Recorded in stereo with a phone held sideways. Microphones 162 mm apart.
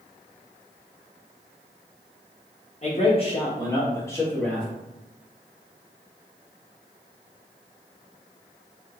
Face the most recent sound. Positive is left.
turn(degrees=10)  # may be behind; listen again after turning